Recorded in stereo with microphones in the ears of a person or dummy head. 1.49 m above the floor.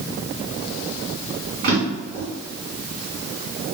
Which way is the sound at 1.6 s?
50° right (ahead or behind).